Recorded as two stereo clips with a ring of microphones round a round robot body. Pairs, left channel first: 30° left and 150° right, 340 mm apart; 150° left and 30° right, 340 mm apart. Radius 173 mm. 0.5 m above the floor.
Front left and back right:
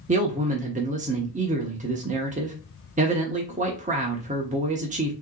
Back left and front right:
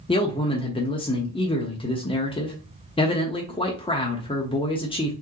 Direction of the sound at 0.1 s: 165° right.